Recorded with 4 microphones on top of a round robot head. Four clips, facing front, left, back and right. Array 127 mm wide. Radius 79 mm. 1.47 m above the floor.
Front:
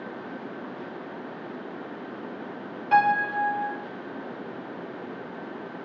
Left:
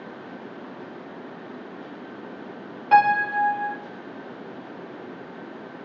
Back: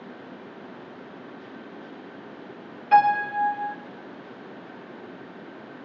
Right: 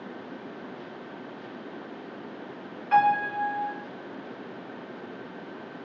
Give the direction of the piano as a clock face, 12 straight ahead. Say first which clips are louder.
Left 4 dB, back 3 dB; 9 o'clock.